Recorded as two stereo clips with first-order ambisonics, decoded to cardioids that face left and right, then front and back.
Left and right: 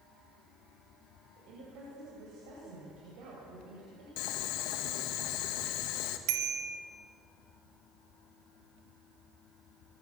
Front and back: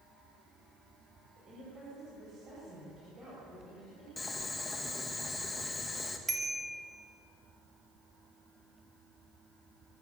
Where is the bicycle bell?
105° right, 2.5 m.